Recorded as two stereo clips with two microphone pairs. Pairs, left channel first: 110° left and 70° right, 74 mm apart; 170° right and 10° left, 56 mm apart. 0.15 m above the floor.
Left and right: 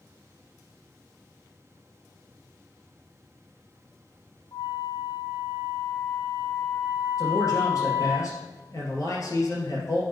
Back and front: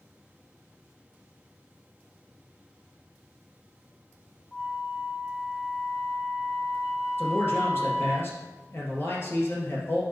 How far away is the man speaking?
About 2.5 m.